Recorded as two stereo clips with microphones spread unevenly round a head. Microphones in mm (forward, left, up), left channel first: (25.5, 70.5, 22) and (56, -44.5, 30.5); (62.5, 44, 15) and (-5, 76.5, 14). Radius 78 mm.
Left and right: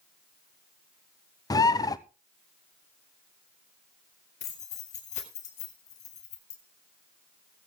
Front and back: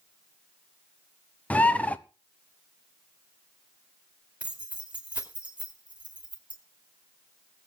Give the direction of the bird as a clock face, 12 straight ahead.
11 o'clock.